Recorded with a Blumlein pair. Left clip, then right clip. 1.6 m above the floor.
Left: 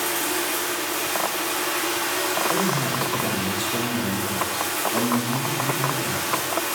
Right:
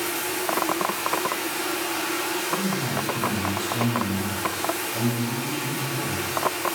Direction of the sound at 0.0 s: 15° left.